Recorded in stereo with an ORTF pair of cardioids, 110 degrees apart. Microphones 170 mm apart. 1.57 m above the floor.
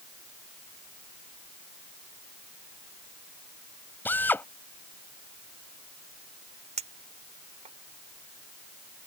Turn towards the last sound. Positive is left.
turn(degrees=-40)